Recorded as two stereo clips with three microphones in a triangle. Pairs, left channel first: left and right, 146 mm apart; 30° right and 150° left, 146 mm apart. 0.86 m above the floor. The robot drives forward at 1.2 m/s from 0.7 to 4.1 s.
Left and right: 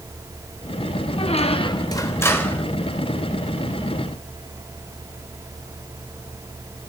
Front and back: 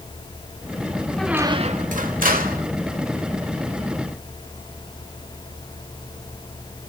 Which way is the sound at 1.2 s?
50° left.